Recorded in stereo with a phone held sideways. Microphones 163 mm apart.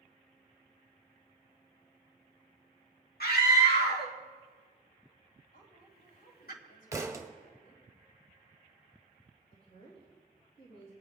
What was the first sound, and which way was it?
A scream, 75° left (ahead or behind).